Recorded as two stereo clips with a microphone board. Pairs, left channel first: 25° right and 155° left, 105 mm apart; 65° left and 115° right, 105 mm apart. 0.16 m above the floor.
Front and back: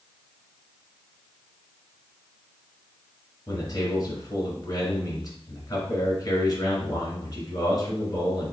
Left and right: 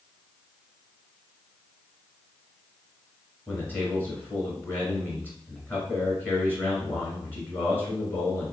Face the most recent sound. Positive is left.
turn(degrees=5)